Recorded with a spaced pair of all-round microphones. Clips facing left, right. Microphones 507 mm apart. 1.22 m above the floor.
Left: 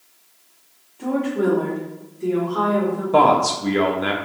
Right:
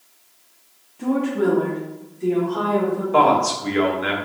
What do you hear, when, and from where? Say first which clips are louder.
1.0 s a woman speaking: right 1 dB; 40° right (ahead or behind), 0.7 m; by 3.0 s centre (ahead or behind), 1.4 m
3.1 s a man speaking: left 3 dB; 60° left (ahead or behind), 0.6 m